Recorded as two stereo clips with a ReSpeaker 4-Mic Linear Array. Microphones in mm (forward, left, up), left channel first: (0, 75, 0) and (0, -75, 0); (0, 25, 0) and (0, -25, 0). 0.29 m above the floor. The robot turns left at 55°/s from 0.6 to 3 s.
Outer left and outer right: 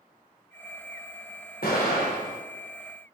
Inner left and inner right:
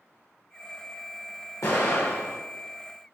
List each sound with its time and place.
1.6 s an explosion: 85° left, 4 m; by 2.4 s 45° left, 4 m